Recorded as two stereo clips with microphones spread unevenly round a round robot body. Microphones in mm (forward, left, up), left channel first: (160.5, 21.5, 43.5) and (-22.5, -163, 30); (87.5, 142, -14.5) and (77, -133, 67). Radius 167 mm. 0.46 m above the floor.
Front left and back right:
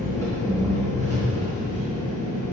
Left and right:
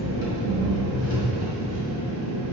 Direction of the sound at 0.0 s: 130° left.